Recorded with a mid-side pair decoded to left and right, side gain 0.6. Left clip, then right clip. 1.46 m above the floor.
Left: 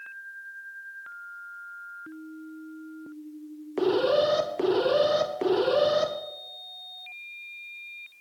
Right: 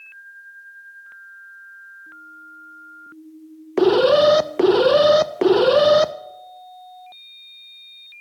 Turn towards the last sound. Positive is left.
turn(degrees=-50)